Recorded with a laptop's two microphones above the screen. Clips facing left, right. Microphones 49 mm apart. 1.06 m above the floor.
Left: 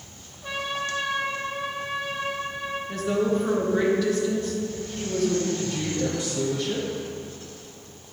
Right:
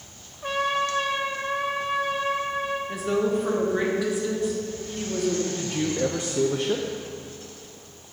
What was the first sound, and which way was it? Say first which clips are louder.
A trumpet: right 5 dB; 60° right (ahead or behind).